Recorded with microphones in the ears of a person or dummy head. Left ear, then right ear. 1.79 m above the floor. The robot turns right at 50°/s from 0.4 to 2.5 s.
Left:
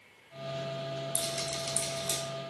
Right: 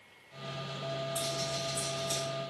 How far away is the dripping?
About 0.9 m.